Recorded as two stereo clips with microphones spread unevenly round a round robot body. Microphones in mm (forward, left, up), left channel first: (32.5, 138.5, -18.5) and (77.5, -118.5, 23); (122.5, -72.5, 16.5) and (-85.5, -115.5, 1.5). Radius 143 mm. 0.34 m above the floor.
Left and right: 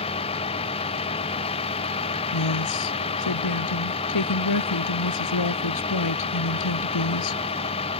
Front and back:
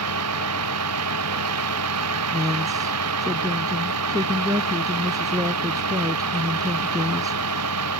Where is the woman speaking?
115° left.